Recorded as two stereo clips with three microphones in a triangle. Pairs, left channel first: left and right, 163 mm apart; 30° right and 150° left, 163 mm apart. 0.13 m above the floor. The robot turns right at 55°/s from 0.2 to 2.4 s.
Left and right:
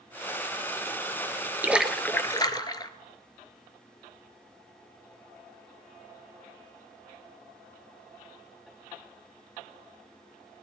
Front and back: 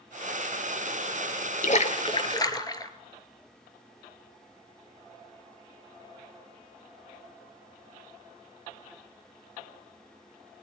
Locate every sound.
1.6 s a splash: 15° right, 0.7 m; by 2.9 s 30° left, 0.7 m